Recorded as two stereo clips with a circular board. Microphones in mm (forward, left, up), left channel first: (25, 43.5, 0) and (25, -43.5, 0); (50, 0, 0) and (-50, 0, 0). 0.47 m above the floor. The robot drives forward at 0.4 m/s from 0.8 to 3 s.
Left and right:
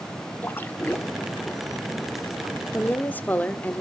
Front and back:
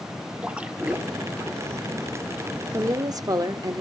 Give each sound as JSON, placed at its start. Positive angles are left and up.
{"t": 0.4, "sound": "a splash", "azimuth_deg": 120, "distance_m": 1.2}
{"t": 2.7, "sound": "a woman speaking", "azimuth_deg": 145, "distance_m": 0.9}